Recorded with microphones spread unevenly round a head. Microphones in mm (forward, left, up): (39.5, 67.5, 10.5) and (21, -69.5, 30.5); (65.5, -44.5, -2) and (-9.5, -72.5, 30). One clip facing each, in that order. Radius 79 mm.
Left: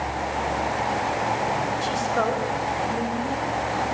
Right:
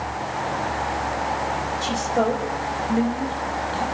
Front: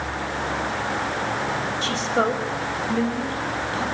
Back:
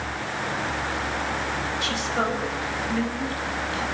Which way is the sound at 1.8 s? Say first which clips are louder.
Right 5 dB, front 5 dB; 30° right.